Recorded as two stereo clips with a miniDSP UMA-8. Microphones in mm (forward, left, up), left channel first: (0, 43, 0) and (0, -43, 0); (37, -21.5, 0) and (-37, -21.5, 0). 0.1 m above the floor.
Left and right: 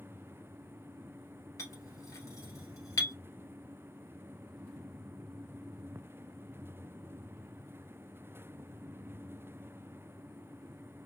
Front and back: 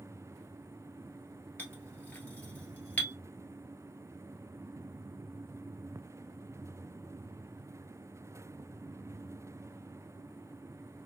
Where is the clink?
60° left, 1.6 m.